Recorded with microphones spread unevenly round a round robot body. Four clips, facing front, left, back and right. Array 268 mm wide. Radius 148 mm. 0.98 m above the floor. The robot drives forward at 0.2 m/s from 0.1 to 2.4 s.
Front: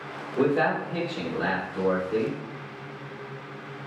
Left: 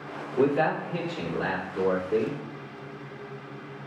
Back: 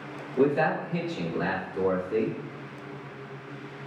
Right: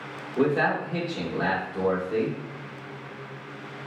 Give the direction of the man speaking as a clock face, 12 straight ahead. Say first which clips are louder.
Even, even; 2 o'clock.